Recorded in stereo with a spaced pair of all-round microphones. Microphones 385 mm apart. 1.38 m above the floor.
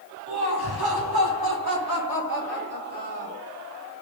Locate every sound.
0.3 s laughter: 80° right, 3 m; by 3.4 s 25° right (ahead or behind), 2.5 m